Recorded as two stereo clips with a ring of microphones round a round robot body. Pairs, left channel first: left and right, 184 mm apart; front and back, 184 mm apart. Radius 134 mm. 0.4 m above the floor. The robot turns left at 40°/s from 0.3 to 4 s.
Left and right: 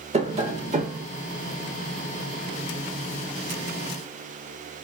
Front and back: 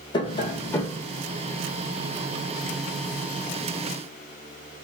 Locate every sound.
0.1 s tapping: 55° right, 1.2 m; by 1.1 s 85° right, 1.2 m